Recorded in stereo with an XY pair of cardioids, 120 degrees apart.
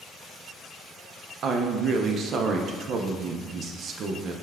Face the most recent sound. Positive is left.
turn(degrees=-55)